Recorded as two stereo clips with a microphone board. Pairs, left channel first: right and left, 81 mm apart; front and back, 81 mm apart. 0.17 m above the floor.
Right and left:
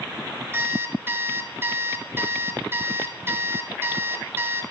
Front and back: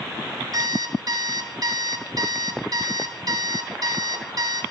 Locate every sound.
0.5 s an alarm clock: 150° left, 1.4 m